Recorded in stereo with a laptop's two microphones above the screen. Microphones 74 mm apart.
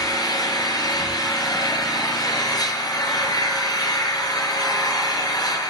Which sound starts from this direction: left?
An engine running, at 0.0 s.